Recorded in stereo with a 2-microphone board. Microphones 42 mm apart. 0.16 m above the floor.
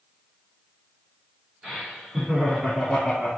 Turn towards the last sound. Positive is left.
turn(degrees=10)  # may be behind; listen again after turning